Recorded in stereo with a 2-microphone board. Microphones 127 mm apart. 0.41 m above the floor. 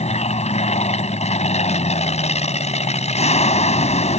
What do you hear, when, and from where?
0.0 s an aircraft: 60° left (ahead or behind)